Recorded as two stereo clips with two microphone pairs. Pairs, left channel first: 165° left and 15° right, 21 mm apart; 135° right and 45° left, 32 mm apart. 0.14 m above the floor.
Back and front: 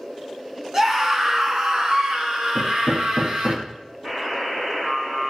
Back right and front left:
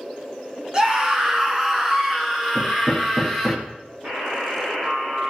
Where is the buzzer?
30° left, 6.5 m.